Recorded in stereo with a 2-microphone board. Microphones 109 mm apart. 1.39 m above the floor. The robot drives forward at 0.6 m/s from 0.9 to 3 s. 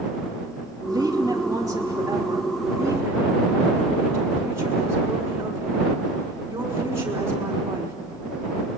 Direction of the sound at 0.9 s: 40° right (ahead or behind).